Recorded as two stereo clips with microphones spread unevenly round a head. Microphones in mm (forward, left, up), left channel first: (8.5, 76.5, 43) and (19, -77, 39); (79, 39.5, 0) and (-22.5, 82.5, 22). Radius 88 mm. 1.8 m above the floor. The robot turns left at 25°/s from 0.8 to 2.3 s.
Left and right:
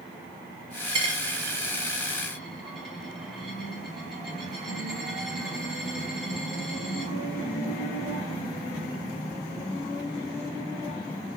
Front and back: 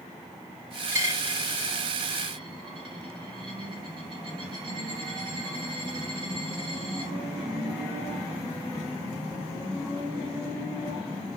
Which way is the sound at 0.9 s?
145° right.